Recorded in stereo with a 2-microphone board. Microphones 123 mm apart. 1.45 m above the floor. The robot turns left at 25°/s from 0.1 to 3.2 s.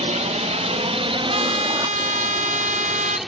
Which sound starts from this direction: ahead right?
A trumpet, at 1.3 s.